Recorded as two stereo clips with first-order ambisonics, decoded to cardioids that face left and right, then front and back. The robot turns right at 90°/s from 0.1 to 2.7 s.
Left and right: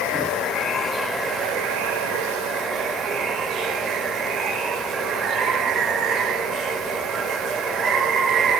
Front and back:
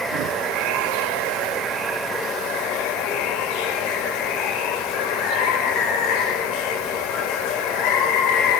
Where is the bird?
I don't hear a bird.